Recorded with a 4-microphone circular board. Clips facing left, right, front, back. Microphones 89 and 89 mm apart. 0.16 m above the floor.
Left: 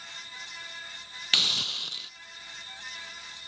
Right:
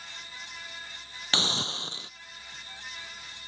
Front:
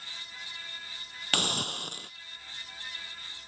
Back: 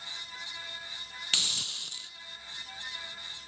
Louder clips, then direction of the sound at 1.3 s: Right 5 dB, front 13 dB; 35° right.